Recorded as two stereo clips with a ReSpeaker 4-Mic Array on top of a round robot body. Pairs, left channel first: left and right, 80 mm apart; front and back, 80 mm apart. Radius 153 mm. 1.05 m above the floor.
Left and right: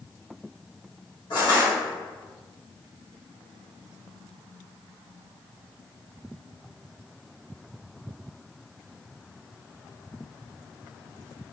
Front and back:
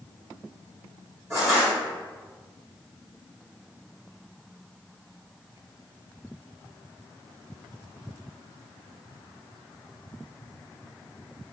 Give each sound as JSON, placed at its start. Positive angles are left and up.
{"t": 1.3, "sound": "crushing", "azimuth_deg": 125, "distance_m": 1.7}